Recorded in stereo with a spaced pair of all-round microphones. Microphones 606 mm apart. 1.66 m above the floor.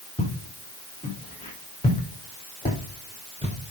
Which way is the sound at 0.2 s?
10° left (ahead or behind).